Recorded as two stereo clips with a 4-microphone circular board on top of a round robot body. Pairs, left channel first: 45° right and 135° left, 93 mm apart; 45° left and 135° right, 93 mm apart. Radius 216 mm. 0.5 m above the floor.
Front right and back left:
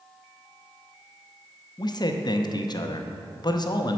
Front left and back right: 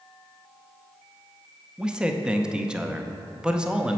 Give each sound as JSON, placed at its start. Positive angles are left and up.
{"t": 1.8, "sound": "a man speaking", "azimuth_deg": -60, "distance_m": 0.8}